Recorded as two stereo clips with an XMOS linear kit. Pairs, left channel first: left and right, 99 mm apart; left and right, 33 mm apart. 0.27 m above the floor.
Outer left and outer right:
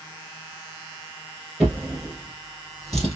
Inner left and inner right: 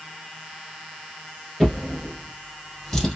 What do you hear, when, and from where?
1.6 s a drawer: 5° left (ahead or behind), 1.6 m